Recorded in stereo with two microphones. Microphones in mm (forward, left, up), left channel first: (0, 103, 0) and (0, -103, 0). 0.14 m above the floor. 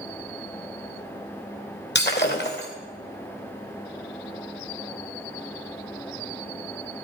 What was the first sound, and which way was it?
Breaking glass, 60° left (ahead or behind).